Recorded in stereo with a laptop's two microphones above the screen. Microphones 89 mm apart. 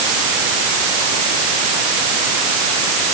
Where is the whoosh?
I don't hear a whoosh.